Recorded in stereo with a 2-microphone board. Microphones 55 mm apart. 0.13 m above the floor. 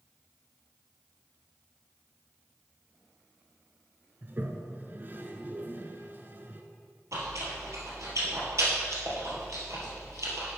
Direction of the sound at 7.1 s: 65° right (ahead or behind).